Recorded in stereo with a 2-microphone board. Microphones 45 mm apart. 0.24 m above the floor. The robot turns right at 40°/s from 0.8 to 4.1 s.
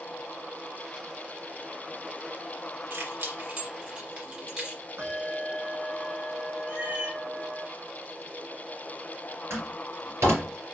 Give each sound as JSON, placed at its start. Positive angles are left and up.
{"t": 2.9, "sound": "keys jangling", "side_deg": -65, "distance_m": 2.5}
{"t": 5.0, "sound": "a bell", "side_deg": -80, "distance_m": 1.8}
{"t": 6.7, "sound": "a cat meowing", "side_deg": -30, "distance_m": 1.9}
{"t": 9.5, "sound": "a door slam", "side_deg": -75, "distance_m": 4.0}